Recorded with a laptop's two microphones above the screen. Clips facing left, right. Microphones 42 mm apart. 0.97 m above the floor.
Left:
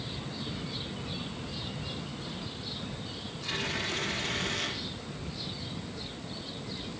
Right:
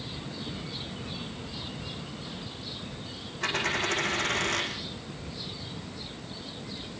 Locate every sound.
3.4 s a dropped coin: 70° right (ahead or behind), 6.5 m